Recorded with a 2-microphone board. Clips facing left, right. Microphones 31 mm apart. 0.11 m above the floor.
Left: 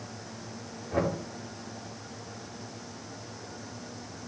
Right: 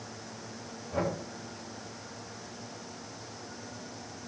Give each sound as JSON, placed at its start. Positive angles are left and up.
{"t": 0.9, "sound": "knocking", "side_deg": 50, "distance_m": 7.0}